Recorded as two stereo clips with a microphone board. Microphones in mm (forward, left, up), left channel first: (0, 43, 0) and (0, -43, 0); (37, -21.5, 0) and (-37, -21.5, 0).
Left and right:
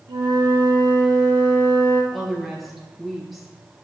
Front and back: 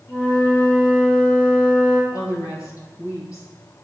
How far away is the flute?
About 1.9 m.